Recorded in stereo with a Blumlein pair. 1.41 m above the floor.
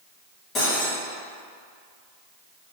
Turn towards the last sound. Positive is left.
turn(degrees=25)